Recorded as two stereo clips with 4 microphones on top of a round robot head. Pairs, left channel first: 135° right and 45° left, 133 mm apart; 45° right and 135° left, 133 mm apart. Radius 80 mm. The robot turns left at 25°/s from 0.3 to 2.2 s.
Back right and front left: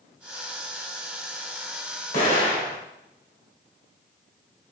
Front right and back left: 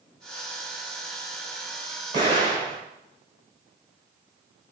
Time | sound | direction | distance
2.1 | an explosion | 165° right | 1.7 m